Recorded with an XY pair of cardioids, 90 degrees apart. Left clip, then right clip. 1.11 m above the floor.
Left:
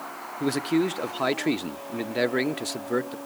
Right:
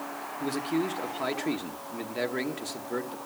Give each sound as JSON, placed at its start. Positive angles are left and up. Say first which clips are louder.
{"t": 0.4, "sound": "a man speaking", "louder": "left 5 dB", "azimuth_deg": 55, "distance_m": 0.9}